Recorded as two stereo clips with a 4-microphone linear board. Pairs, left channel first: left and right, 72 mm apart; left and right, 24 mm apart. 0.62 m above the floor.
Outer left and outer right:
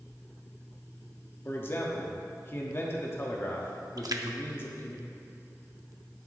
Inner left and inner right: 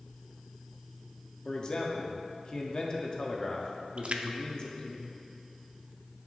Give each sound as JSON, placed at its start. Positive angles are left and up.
{"t": 1.4, "sound": "a man speaking", "side_deg": 35, "distance_m": 1.3}
{"t": 4.0, "sound": "a splash", "side_deg": -60, "distance_m": 0.6}